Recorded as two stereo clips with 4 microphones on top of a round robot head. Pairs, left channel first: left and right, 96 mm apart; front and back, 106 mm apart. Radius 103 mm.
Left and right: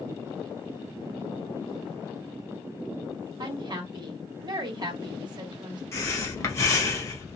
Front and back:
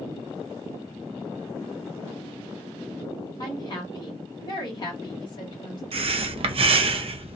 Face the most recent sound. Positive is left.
turn(degrees=150)